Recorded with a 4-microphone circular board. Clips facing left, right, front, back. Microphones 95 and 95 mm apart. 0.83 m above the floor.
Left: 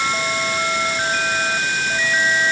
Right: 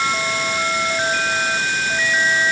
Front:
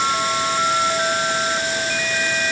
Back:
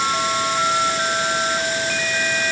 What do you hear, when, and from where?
Only background noise.